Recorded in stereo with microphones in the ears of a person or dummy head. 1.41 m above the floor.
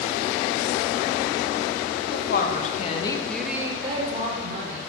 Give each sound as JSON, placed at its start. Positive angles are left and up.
{"t": 2.1, "sound": "a woman speaking", "side_deg": 60, "distance_m": 1.2}